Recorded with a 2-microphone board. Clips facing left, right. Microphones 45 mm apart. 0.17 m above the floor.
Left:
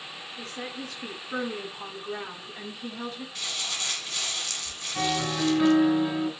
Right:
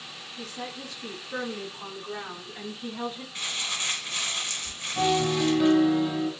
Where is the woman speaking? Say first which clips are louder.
Even; 55° left (ahead or behind), 1.8 m; by 3.2 s 30° right (ahead or behind), 1.1 m.